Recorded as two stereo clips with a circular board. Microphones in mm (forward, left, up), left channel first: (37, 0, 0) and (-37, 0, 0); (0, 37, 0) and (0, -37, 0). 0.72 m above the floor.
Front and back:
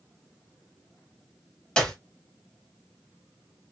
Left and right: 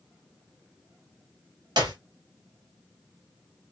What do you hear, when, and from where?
1.8 s a clap: 75° right, 2.5 m